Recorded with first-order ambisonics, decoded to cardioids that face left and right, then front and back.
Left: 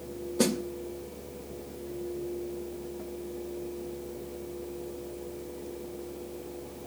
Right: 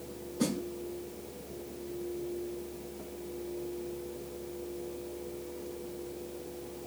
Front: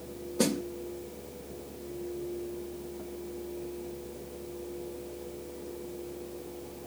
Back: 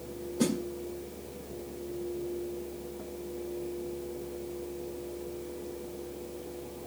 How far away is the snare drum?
About 1.7 m.